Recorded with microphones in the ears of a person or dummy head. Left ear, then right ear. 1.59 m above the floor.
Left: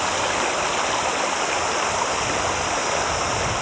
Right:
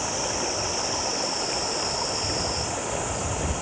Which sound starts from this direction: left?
Running water, at 0.0 s.